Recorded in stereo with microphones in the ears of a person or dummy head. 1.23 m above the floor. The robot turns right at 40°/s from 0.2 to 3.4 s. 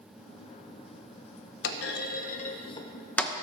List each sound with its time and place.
1.6 s a clunk: 70° left (ahead or behind), 0.6 m; by 3.3 s 5° left (ahead or behind), 0.6 m